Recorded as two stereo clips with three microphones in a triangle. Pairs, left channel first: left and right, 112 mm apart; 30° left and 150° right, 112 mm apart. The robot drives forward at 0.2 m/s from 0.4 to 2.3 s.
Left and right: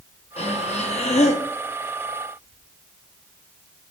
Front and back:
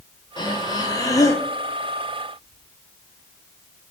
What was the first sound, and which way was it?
Breathing, 80° left.